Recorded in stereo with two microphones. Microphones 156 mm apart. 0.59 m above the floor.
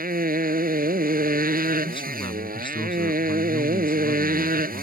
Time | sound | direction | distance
0.0 | a motorcycle | 70° right (ahead or behind) | ?
1.9 | a man speaking | 30° left (ahead or behind) | ?